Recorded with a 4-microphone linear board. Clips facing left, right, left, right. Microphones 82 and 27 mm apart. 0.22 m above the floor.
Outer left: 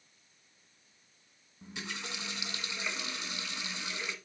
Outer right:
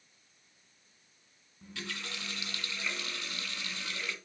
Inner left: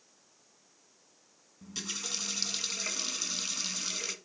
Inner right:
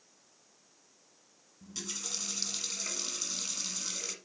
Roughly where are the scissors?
No scissors in this recording.